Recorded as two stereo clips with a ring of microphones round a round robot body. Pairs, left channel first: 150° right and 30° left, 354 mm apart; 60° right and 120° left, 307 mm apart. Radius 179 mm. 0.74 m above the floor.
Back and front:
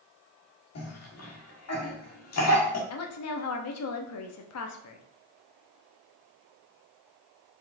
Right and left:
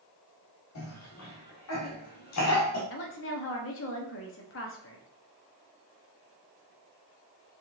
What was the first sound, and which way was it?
A cough, 105° right.